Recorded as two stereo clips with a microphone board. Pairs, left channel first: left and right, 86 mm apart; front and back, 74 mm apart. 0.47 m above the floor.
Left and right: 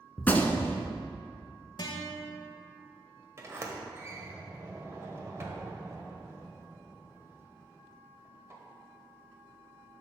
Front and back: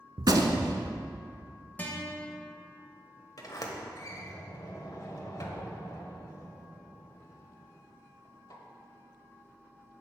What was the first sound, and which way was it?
A gunshot, 160° left.